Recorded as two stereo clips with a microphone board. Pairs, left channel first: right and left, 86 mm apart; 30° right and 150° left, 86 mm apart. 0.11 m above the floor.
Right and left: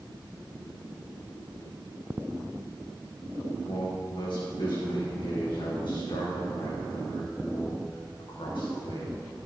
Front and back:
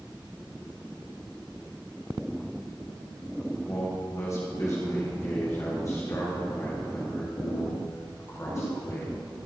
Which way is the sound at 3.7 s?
80° right.